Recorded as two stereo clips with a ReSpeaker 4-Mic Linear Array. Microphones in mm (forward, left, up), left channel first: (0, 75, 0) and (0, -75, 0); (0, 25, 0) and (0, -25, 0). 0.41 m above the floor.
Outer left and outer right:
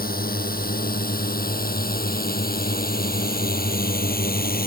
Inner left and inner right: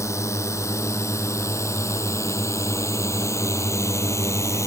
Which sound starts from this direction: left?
A drone, at 0.0 s.